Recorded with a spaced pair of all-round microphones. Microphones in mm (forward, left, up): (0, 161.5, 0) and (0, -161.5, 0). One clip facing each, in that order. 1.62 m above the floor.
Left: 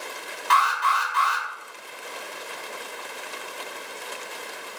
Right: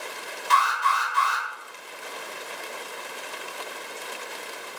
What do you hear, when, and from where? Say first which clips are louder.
0.5 s an alarm: left 1 dB; 75° left (ahead or behind), 1.1 m